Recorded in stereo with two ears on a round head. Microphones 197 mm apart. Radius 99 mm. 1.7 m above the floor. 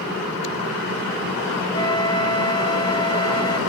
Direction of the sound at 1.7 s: 20° left (ahead or behind).